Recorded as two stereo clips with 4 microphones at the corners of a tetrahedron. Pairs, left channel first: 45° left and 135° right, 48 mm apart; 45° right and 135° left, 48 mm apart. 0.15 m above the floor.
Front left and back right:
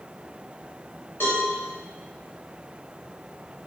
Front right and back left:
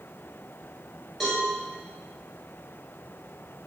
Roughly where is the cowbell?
Ahead left.